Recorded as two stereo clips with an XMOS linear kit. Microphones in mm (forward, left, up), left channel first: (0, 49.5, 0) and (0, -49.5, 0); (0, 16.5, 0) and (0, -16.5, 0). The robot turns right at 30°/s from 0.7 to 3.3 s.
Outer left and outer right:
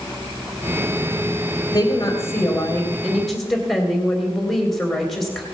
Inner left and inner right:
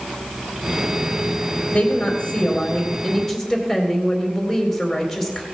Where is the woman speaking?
130° left, 2.5 m; by 5.5 s straight behind, 2.5 m.